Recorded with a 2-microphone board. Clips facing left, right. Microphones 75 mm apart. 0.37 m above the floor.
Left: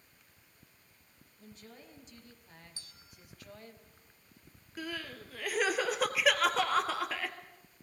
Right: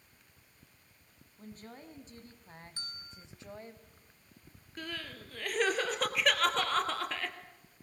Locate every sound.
1.4 s a woman speaking: 35° right (ahead or behind), 3.5 m; by 3.8 s 20° right (ahead or behind), 2 m
2.8 s a bell: 45° right (ahead or behind), 1.4 m
4.8 s crying: 5° left (ahead or behind), 2 m